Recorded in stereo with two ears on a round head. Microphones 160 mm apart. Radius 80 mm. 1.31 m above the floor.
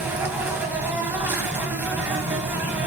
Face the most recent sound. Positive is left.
turn(degrees=-10)  # may be behind; listen again after turning